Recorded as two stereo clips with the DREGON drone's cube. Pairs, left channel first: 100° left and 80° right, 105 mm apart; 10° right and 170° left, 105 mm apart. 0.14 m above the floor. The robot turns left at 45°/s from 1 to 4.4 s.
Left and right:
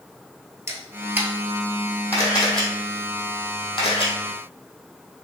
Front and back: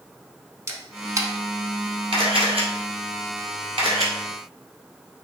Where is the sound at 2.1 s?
150° right, 1.7 m; by 4.1 s 120° left, 1.7 m.